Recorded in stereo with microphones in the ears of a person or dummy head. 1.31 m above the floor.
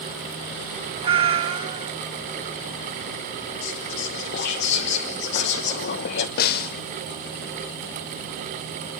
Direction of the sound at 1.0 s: 30° right (ahead or behind).